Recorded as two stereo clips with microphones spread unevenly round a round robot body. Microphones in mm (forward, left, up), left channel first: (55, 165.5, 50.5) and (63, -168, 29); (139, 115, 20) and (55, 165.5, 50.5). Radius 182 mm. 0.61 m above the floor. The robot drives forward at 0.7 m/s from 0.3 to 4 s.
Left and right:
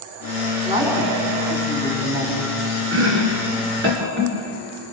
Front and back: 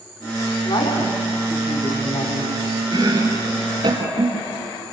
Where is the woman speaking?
10° right, 5.5 m; by 2.5 s 15° right, 4.5 m.